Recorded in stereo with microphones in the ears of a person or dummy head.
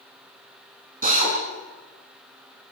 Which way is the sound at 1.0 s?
40° right (ahead or behind).